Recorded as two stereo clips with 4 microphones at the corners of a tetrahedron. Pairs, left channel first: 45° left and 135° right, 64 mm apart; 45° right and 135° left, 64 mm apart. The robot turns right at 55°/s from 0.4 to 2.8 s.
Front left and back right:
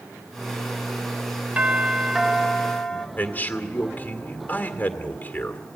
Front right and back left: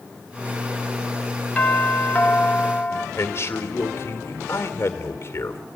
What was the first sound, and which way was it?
A doorbell, 90° right.